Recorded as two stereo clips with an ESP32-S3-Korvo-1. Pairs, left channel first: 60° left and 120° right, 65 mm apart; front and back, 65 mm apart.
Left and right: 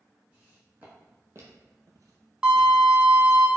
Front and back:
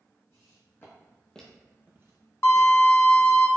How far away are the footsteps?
About 1.9 m.